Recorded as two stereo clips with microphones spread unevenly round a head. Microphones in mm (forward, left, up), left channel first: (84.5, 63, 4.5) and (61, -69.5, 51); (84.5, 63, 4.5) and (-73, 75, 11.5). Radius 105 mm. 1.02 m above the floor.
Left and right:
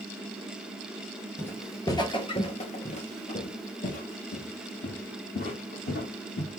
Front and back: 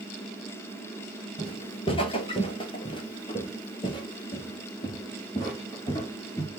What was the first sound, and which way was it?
Footsteps, 25° right.